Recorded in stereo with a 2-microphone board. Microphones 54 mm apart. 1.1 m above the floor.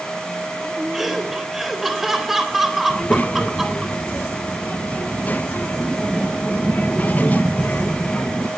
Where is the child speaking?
30° left (ahead or behind), 0.7 m.